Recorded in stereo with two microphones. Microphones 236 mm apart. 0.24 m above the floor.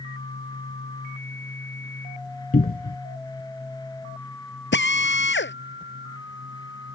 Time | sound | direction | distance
2.5 | a cupboard door | 40° left (ahead or behind) | ?
4.7 | a drill | 50° left (ahead or behind) | ?